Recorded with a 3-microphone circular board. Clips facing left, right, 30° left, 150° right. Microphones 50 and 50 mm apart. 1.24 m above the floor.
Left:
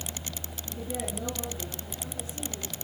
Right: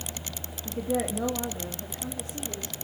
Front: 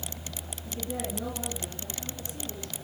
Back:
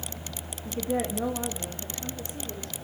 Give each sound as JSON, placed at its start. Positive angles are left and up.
{"t": 0.7, "sound": "a woman speaking", "azimuth_deg": -100, "distance_m": 1.8}